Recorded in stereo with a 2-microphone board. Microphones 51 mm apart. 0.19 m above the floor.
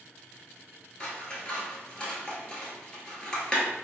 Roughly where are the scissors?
Centre.